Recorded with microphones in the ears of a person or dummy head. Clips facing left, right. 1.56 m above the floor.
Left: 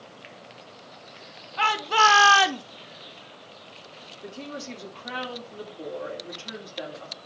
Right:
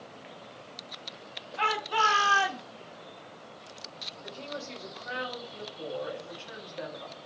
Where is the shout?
60° left (ahead or behind), 1.8 m; by 2.6 s 85° left, 0.9 m.